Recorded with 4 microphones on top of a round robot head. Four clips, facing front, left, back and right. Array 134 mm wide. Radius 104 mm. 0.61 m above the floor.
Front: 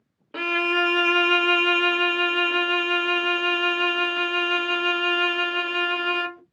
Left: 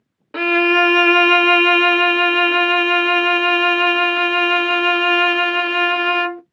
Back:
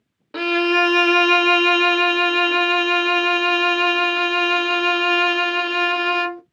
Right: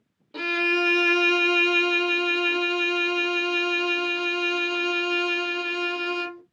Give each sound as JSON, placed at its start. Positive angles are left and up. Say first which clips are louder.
{"t": 0.3, "sound": "a violin", "louder": "left 10 dB, back 6 dB", "azimuth_deg": 110, "distance_m": 0.5}